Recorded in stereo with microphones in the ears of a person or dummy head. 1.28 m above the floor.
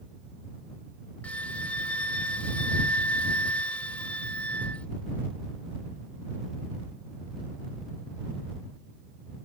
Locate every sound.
1.2 s a flute: 10° left (ahead or behind)